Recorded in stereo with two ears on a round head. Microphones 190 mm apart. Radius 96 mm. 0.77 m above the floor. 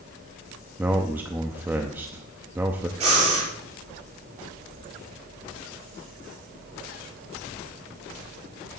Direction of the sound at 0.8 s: 10° right (ahead or behind).